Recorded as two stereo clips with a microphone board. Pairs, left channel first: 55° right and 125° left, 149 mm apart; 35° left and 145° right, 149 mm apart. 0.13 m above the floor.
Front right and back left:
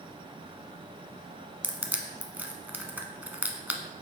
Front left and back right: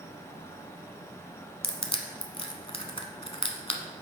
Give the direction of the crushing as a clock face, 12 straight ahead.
10 o'clock.